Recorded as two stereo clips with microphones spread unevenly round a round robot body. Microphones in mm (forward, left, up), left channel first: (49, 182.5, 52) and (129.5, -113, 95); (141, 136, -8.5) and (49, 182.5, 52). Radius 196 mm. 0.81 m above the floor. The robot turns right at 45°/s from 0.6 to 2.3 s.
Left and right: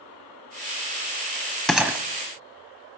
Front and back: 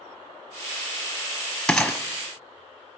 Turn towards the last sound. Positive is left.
turn(degrees=-130)